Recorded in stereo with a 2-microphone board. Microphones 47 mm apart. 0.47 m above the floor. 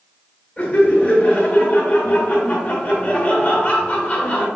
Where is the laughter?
30° left (ahead or behind), 2.0 m.